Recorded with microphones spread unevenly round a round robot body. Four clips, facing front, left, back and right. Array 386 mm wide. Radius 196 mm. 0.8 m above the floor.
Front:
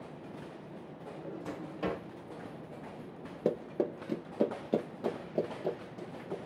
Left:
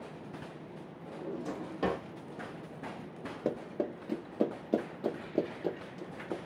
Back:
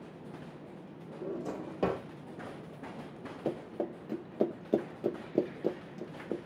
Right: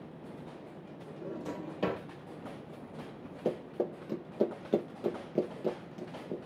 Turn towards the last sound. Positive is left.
turn(degrees=180)